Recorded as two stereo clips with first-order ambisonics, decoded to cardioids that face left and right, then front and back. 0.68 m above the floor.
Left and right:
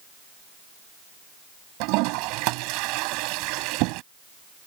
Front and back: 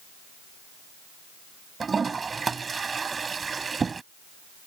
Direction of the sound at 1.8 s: 105° right.